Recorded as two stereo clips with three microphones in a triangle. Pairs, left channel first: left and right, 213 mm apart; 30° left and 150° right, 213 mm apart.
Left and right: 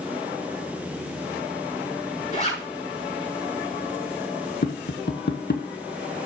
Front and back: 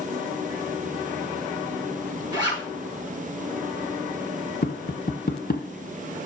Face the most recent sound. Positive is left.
turn(degrees=65)